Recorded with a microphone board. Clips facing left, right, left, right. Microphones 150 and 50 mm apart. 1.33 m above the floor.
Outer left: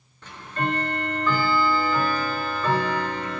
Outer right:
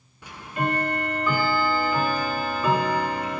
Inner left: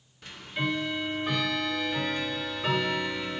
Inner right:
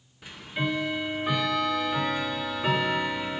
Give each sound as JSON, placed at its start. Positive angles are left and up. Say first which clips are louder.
{"t": 0.2, "sound": "ticking", "louder": "outer right 1 dB, inner right 1 dB", "side_deg": -10, "distance_m": 0.6}